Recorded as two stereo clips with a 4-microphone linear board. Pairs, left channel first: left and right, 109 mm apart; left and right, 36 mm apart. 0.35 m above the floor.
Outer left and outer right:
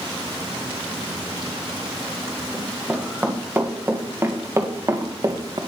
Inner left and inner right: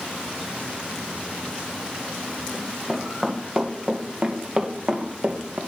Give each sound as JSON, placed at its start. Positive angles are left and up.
{"t": 2.5, "sound": "running footsteps", "side_deg": -15, "distance_m": 3.5}